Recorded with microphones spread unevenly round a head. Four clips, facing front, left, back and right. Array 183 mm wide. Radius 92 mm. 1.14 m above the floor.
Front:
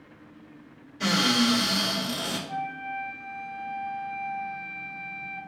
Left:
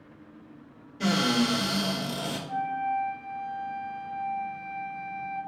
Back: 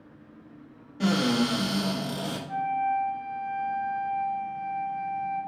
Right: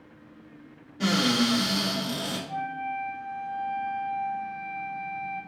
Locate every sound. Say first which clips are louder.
1.0 s a cupboard door: right 1 dB, even; 150° right, 1.3 m
2.5 s a flute: left 6 dB, back 6 dB; 100° left, 0.7 m